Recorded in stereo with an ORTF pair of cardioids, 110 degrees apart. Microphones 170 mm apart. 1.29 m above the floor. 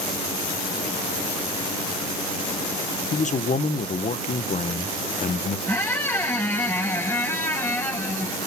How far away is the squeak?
About 6.5 m.